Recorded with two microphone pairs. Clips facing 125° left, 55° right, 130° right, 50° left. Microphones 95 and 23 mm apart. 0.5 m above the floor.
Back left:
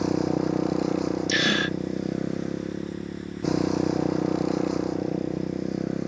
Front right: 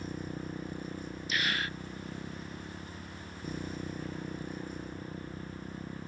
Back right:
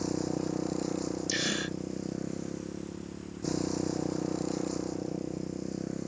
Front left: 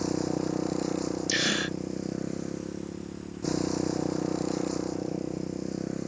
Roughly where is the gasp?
Behind left.